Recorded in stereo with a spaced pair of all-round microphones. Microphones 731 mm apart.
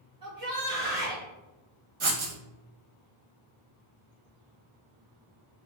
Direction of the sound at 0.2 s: 30° right (ahead or behind).